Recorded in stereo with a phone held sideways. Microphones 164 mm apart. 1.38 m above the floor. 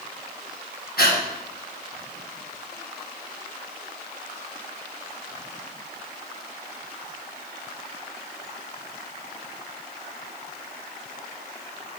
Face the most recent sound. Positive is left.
turn(degrees=65)  # may be behind; listen again after turning